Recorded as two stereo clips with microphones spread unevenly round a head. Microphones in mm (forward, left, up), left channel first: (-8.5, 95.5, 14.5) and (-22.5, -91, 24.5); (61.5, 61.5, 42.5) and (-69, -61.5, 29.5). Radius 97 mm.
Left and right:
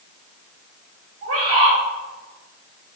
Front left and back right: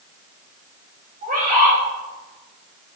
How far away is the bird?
About 3 m.